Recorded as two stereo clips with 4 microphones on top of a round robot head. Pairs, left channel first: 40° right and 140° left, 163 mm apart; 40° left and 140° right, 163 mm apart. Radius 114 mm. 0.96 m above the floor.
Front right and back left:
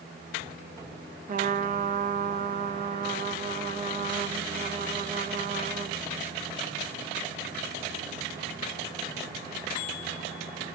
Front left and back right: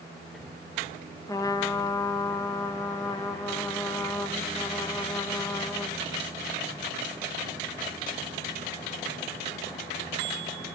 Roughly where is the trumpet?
Left.